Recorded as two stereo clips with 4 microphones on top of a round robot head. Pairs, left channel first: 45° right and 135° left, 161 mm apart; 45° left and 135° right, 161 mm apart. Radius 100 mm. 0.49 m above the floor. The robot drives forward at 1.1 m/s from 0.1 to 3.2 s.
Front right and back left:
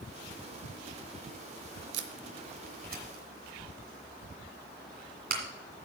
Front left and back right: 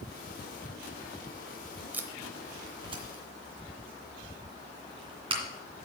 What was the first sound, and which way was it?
Tape being pulled, 145° left.